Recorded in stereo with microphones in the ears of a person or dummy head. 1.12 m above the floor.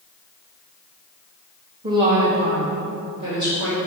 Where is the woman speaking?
30° right (ahead or behind), 1.3 m; by 3.8 s 25° right (ahead or behind), 4 m.